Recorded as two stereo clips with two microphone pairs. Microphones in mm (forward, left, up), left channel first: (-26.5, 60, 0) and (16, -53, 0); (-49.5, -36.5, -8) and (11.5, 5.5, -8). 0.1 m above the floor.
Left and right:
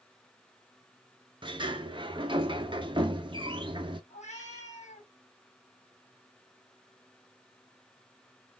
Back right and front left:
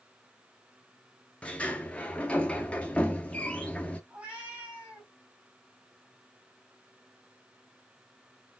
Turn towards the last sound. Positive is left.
turn(degrees=105)